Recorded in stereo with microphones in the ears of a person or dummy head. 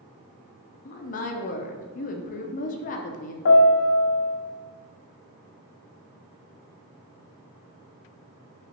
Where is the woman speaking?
40° left (ahead or behind), 0.6 m.